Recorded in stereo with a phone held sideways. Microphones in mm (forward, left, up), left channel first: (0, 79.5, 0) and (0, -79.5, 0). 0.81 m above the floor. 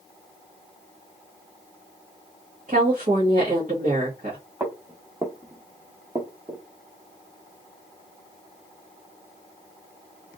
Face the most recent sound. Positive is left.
turn(degrees=-15)  # may be behind; listen again after turning